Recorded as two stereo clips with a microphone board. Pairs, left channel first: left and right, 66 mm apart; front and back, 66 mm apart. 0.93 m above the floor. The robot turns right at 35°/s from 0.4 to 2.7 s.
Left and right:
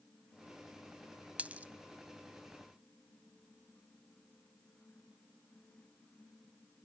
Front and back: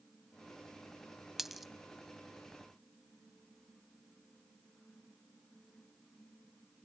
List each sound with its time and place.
1.4 s a dropped coin: 105° right, 0.8 m; by 1.7 s 95° right, 0.8 m